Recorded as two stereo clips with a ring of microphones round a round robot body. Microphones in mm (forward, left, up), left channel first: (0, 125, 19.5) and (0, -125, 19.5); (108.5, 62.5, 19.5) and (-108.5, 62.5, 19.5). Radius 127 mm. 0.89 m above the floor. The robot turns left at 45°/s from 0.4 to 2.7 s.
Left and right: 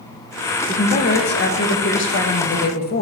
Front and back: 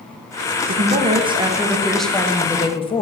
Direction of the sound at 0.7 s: 145° left.